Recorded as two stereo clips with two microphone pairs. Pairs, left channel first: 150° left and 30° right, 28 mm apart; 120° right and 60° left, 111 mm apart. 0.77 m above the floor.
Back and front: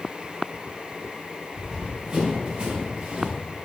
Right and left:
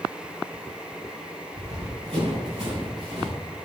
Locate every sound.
1.5 s running footsteps: 45° left, 3 m; by 3.4 s 25° left, 4.5 m